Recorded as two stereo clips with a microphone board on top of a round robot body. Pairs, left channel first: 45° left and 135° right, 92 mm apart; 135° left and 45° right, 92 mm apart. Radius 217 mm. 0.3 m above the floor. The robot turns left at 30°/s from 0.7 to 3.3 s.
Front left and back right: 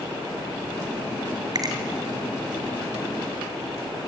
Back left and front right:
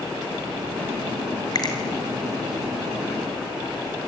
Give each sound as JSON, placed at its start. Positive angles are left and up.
{"t": 1.6, "sound": "a finger snap", "azimuth_deg": 180, "distance_m": 3.0}